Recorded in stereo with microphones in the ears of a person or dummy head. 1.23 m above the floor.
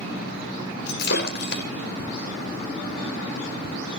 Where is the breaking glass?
65° left (ahead or behind), 2 m.